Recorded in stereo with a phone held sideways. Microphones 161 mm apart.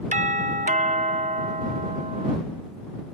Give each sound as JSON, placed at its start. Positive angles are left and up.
{"t": 0.1, "sound": "a doorbell", "side_deg": -50}